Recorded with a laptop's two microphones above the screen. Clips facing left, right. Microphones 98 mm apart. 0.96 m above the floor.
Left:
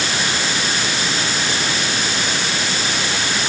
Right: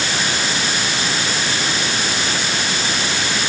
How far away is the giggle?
I don't hear a giggle.